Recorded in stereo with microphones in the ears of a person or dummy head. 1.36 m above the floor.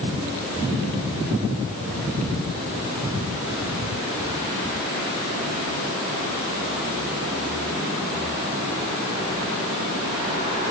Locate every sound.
Only background noise.